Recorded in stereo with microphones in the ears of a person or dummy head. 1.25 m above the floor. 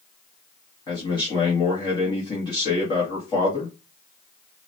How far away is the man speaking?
About 2 m.